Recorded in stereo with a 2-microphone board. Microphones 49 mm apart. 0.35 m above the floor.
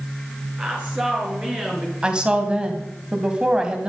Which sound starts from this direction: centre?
A woman speaking, at 2.0 s.